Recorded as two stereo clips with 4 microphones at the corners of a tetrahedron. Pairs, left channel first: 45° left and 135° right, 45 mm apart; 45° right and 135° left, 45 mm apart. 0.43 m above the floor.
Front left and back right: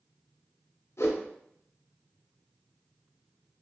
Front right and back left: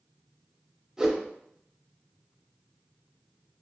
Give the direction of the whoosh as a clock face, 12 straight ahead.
10 o'clock.